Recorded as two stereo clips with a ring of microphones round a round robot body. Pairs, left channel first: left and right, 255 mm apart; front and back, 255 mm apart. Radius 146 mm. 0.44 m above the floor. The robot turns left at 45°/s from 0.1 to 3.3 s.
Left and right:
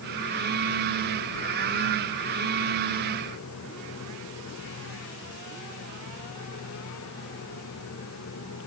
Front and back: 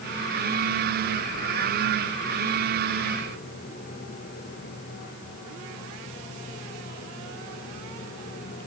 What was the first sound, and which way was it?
Only background noise.